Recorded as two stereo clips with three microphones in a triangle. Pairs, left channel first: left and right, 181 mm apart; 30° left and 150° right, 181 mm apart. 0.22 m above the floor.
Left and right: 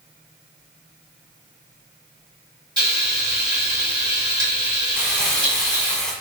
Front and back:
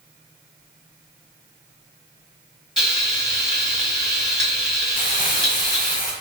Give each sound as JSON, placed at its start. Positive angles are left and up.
{"t": 2.8, "sound": "frying", "azimuth_deg": -65, "distance_m": 1.6}
{"t": 5.0, "sound": "crumpling", "azimuth_deg": 5, "distance_m": 0.6}